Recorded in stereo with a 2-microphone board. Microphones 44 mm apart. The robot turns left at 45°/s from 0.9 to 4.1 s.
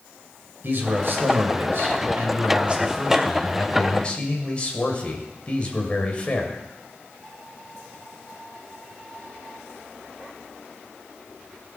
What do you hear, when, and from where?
0.6 s a man speaking: 65° right, 2.5 m; by 6.6 s 150° left, 2.5 m